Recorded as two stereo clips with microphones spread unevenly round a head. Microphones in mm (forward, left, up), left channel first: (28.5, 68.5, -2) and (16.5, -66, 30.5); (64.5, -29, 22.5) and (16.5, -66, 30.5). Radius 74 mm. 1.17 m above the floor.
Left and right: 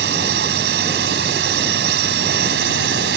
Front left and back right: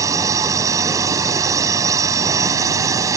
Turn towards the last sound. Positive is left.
turn(degrees=-115)